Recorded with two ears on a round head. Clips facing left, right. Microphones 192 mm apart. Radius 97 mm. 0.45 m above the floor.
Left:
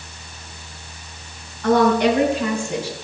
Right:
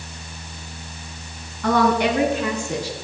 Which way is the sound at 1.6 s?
55° right (ahead or behind).